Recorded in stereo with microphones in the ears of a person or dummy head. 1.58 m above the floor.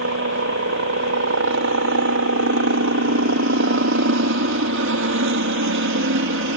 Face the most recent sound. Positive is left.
turn(degrees=-60)  # may be behind; listen again after turning